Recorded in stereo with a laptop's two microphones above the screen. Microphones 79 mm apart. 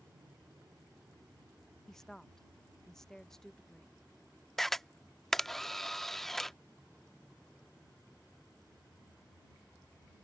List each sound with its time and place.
0.0 s an aircraft: 45° right (ahead or behind); by 10.3 s 25° left (ahead or behind)
1.9 s a woman speaking: 5° left (ahead or behind)
4.6 s a camera shutter: 5° left (ahead or behind)